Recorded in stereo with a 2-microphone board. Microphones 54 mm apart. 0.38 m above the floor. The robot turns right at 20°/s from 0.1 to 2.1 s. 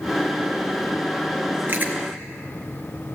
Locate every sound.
1.7 s chewing: 30° right (ahead or behind), 4 m; by 1.9 s 35° right (ahead or behind), 4 m